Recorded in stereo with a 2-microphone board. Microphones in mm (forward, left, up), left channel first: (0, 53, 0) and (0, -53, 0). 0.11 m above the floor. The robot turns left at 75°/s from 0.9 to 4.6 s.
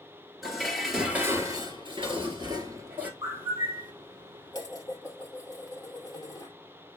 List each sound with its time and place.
0.4 s dishes clattering: straight ahead, 1.3 m; by 3.1 s 165° right, 1.3 m
3.2 s a bird: 150° right, 1.3 m; by 3.9 s 155° left, 1.3 m
4.5 s dishes clattering: 40° left (ahead or behind), 1.8 m